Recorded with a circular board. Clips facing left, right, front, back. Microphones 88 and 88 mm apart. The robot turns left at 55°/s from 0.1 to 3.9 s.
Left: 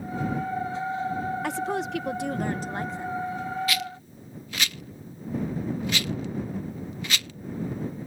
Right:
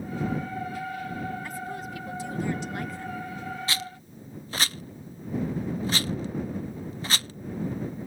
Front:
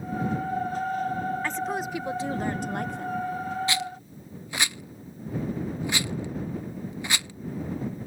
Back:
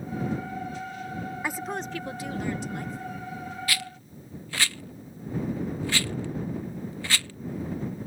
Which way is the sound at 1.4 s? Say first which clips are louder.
Left 7 dB, front 3 dB; 105° left.